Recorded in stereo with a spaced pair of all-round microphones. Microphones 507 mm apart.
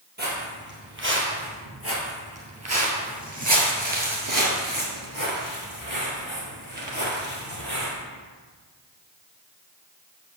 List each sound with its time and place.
0.2 s footsteps: 20° right (ahead or behind), 3 m; by 8.0 s 30° right (ahead or behind), 2.5 m